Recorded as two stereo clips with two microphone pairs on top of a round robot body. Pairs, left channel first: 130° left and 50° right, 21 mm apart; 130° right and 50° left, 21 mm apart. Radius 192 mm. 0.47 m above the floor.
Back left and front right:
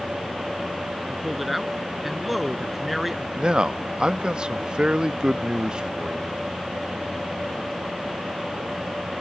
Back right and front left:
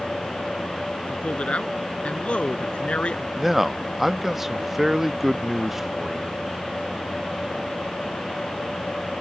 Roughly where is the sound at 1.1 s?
Behind right.